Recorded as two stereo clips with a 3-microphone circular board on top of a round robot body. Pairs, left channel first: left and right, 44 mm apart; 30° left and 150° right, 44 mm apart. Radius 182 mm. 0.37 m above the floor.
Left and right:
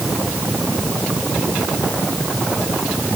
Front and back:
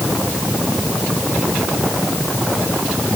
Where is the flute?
I don't hear a flute.